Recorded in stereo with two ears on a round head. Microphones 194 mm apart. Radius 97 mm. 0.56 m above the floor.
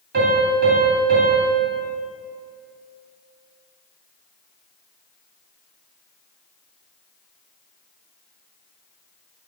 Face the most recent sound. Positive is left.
turn(degrees=-50)  # may be behind; listen again after turning